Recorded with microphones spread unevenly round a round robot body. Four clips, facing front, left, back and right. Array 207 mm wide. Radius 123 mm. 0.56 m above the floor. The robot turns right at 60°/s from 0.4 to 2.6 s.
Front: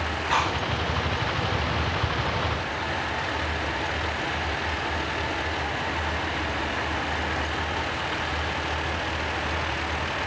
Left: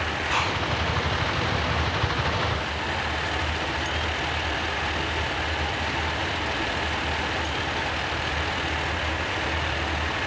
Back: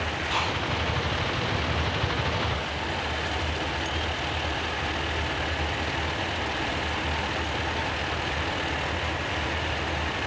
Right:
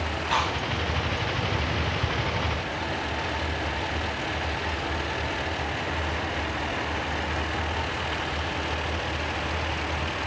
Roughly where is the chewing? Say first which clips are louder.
Right 1 dB, front 5 dB; ahead.